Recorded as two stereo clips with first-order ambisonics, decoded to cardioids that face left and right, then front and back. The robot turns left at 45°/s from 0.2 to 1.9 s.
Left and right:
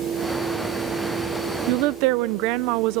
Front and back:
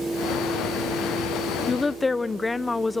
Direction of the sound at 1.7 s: 70° right.